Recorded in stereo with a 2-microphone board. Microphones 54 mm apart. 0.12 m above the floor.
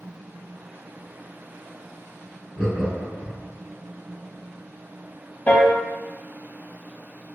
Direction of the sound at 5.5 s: 35° left (ahead or behind).